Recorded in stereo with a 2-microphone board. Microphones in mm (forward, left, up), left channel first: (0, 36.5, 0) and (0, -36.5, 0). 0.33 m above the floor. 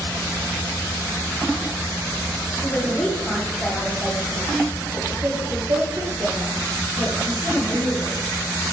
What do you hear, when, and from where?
2.6 s a man speaking: 30° left (ahead or behind), 2.5 m; by 8.1 s 75° right (ahead or behind), 4.5 m